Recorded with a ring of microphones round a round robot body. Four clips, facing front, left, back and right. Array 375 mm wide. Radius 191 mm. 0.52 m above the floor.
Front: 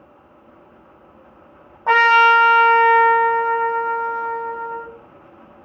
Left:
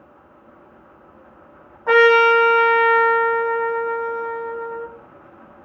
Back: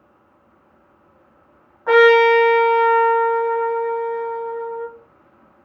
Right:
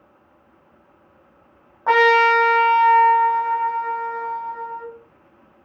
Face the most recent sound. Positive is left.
turn(degrees=-40)